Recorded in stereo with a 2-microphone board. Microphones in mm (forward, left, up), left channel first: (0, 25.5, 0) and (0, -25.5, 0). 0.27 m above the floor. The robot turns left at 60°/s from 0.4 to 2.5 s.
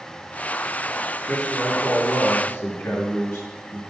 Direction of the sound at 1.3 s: Straight behind.